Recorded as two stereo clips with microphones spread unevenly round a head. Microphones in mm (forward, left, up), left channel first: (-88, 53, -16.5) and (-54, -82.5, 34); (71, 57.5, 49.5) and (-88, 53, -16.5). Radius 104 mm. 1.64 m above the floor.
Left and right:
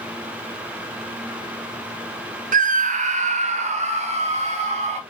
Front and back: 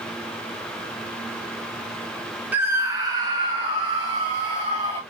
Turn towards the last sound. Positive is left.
turn(degrees=-115)